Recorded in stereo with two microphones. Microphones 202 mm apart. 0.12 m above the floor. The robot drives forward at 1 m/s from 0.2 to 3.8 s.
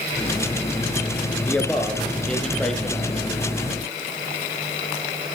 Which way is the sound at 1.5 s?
5° left (ahead or behind).